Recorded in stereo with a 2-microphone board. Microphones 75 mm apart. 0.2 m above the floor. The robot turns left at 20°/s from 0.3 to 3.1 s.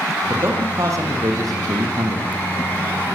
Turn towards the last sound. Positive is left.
turn(degrees=-95)